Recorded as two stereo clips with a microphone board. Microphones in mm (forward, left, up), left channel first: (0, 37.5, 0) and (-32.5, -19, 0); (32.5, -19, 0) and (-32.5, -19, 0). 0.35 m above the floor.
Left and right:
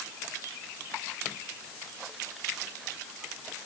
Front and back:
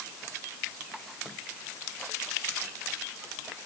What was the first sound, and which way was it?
Only background noise.